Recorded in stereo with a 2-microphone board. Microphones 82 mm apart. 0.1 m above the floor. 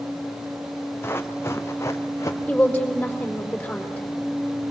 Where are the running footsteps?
30° left (ahead or behind), 1.7 m; by 2.4 s 35° left (ahead or behind), 2.5 m.